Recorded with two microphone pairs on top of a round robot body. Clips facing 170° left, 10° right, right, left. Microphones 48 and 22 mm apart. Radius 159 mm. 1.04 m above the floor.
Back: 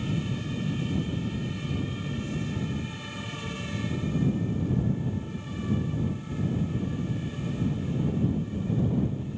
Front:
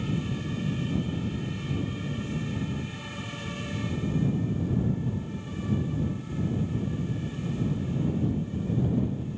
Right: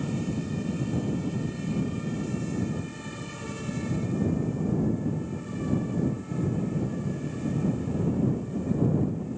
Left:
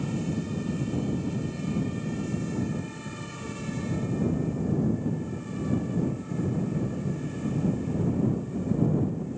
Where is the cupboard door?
No cupboard door in this recording.